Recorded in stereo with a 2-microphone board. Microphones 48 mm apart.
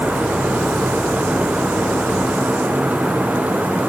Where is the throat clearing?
I don't hear throat clearing.